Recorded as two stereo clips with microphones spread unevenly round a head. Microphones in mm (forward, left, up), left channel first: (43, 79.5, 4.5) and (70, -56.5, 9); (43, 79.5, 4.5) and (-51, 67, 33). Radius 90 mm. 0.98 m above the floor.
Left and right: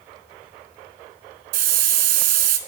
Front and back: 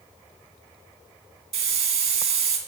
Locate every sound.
1.5 s a hiss: 120° right, 1.4 m